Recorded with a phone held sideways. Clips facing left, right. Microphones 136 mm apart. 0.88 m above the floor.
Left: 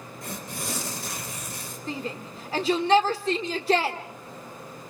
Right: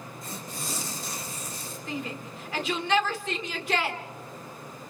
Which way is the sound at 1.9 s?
35° left (ahead or behind).